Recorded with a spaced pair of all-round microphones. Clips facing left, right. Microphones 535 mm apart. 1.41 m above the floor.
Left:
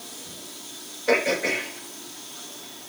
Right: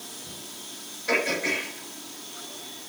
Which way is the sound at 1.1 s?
75° left (ahead or behind).